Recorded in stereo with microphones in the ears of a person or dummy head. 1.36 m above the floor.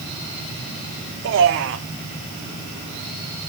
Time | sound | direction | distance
1.2 | a man speaking | 55° right (ahead or behind) | 0.6 m